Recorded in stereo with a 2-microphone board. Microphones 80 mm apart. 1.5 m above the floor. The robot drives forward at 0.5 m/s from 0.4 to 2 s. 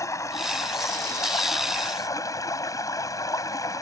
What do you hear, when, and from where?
0.0 s running water: 40° left (ahead or behind); by 3.8 s 45° left (ahead or behind)